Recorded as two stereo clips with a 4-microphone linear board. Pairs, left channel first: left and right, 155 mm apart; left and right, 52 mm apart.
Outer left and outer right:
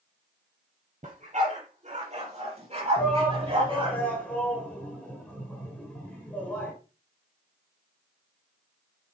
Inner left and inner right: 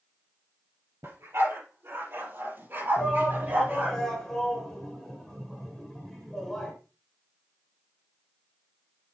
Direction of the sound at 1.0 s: 55° right (ahead or behind).